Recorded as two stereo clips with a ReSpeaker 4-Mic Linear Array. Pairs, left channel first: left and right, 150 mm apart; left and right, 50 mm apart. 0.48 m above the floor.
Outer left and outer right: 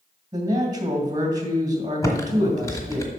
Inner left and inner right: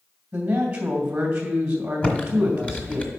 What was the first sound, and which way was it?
A man speaking, 25° right (ahead or behind).